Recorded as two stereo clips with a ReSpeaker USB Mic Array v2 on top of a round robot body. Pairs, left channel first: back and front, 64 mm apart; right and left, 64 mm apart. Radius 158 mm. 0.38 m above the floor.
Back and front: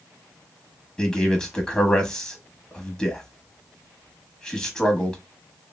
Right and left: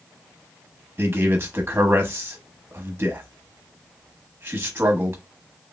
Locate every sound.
1.0 s a man speaking: 110° left, 0.9 m